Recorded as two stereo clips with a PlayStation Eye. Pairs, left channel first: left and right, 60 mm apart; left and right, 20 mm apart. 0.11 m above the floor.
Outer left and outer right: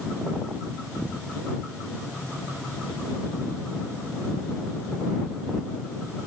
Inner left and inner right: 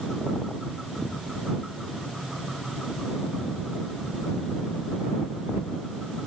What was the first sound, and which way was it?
Only background noise.